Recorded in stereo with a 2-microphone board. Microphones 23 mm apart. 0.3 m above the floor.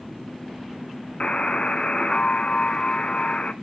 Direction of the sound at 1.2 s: 55° left (ahead or behind).